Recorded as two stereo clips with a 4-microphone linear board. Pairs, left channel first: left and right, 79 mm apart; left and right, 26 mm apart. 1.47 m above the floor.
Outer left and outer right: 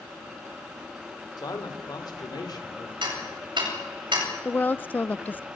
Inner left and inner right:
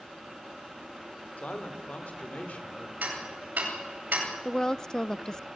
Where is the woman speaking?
20° left (ahead or behind), 0.7 m.